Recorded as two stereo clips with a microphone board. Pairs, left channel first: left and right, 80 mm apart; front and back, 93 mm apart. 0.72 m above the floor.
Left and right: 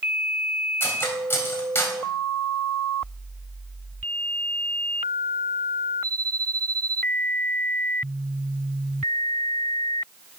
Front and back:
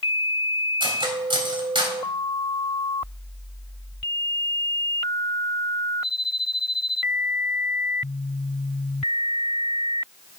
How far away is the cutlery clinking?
About 2 m.